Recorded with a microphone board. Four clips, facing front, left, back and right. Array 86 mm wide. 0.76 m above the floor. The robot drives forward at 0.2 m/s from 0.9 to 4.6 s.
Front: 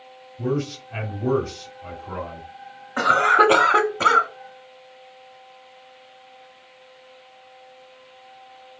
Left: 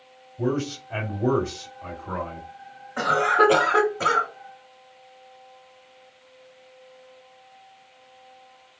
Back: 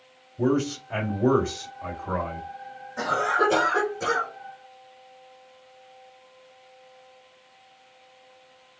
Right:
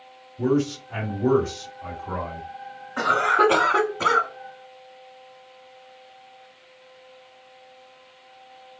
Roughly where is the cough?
Ahead.